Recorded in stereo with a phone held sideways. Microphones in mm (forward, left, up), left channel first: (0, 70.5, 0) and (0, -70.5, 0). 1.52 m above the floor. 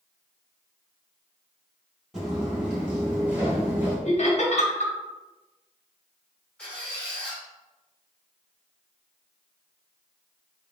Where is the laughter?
55° left (ahead or behind), 1.0 m.